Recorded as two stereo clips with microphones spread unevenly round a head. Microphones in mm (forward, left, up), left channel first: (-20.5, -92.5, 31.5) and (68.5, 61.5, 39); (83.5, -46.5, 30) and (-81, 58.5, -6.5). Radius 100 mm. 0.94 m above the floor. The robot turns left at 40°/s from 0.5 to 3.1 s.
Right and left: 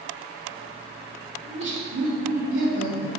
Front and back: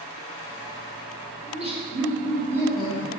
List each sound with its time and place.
1.4 s laughter: 95° left, 2.5 m; by 3.1 s 30° left, 2.5 m